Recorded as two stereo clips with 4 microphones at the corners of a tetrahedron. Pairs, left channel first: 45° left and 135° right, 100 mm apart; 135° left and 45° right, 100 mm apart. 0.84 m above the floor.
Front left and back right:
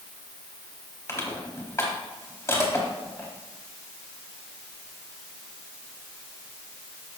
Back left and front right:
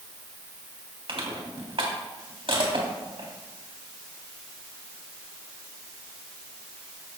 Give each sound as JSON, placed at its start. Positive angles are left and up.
{"t": 1.1, "sound": "crushing", "azimuth_deg": -15, "distance_m": 3.5}